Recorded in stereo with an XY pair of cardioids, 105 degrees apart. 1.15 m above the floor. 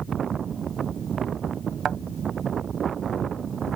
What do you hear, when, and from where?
1.9 s a thud: 60° right